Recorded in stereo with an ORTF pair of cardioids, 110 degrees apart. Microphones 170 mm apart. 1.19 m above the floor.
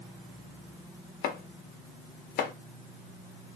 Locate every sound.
1.2 s chopping: 65° left, 0.7 m